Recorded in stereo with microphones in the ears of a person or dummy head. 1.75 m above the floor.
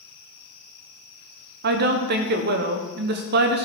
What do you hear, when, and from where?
1.6 s a woman speaking: 60° right (ahead or behind), 1.3 m